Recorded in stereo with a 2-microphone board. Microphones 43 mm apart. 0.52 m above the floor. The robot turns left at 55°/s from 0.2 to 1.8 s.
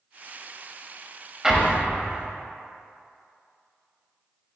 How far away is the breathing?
No breathing in this recording.